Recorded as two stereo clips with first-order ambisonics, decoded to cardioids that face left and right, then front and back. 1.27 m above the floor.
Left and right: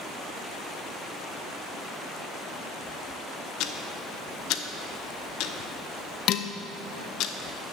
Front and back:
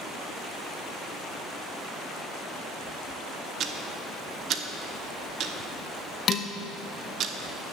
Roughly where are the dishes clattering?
Ahead left.